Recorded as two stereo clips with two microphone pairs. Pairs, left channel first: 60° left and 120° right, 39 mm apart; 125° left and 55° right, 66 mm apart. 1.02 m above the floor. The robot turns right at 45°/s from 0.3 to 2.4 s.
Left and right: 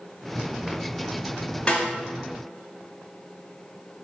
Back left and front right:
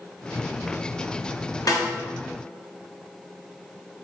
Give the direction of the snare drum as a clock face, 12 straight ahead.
8 o'clock.